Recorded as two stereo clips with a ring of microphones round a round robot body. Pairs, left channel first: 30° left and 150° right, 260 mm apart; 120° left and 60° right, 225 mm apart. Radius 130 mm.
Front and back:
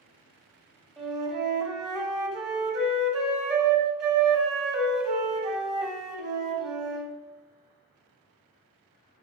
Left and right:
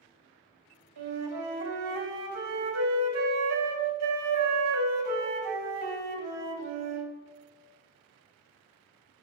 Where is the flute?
60° right, 1.3 m.